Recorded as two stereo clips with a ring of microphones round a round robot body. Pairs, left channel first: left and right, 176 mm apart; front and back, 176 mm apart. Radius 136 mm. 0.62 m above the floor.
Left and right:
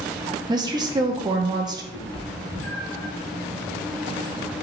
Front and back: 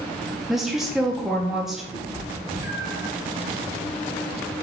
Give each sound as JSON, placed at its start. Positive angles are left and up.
{"t": 0.5, "sound": "a woman speaking", "azimuth_deg": -95, "distance_m": 0.6}
{"t": 1.9, "sound": "a cat meowing", "azimuth_deg": 105, "distance_m": 2.0}